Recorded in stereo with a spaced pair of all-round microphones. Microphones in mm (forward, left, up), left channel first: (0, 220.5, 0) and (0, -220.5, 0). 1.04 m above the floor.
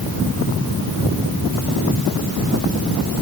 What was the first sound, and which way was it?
Only background noise.